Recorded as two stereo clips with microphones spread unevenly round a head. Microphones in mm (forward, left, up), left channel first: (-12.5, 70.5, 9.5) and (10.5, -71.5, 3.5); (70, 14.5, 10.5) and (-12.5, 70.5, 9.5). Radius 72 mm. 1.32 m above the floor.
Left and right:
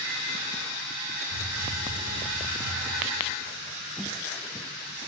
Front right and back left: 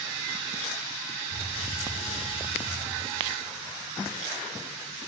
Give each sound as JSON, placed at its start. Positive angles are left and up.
{"t": 1.3, "sound": "a hiss", "azimuth_deg": 0, "distance_m": 3.0}